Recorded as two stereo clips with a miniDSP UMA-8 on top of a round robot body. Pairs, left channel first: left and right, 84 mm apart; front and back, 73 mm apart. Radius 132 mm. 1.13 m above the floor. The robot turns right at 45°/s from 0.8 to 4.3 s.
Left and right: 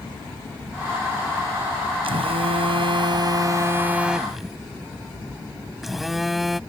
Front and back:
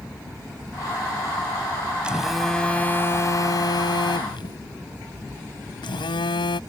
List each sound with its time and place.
2.0 s a phone buzzing: 105° right; by 6.6 s straight ahead